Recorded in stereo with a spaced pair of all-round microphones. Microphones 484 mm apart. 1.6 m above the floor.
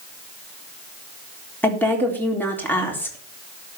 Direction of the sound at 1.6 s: 5° left (ahead or behind).